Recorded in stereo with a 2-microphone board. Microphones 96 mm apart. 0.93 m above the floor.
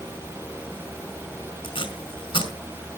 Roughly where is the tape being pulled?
Left.